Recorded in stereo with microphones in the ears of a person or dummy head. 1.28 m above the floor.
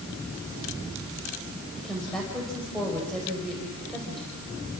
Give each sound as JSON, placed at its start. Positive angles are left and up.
{"t": 1.8, "sound": "a woman speaking", "side_deg": 0, "distance_m": 5.0}